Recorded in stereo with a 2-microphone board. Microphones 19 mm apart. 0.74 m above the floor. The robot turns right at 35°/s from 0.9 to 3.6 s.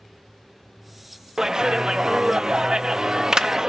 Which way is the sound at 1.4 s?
125° right.